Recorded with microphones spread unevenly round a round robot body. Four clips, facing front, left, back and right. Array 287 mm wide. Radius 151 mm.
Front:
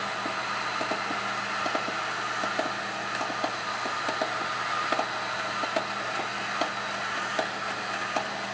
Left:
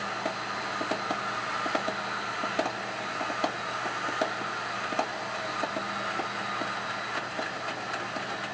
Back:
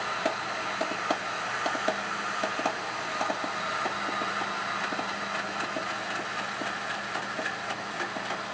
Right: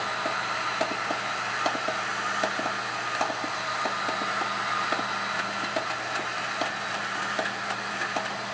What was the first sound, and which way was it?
Only background noise.